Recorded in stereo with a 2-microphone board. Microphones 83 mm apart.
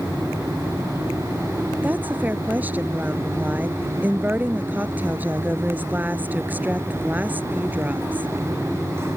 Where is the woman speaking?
20° right (ahead or behind).